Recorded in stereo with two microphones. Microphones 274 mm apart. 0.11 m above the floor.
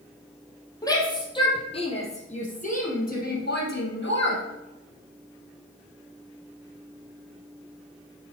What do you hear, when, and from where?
0.8 s a shout: 15° left (ahead or behind), 3.5 m; by 4.4 s 45° left (ahead or behind), 3 m